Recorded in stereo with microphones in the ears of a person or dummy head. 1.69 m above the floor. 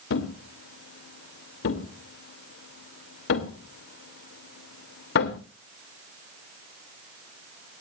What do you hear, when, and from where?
0.1 s a thud: 60° left (ahead or behind), 2.5 m